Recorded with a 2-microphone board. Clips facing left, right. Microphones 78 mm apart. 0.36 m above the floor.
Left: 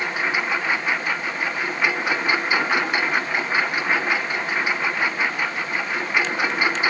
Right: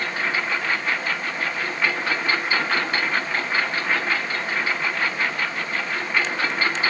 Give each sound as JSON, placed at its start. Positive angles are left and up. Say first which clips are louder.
{"t": 0.0, "sound": "a lawn mower", "louder": "left 1 dB", "side_deg": 10}